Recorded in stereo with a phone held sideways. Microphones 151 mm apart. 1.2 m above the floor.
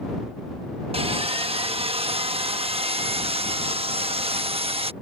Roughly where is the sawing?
Right.